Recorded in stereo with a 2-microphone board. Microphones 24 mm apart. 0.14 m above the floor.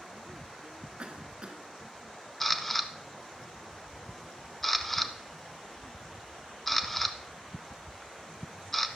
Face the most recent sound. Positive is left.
turn(degrees=5)  # may be behind; listen again after turning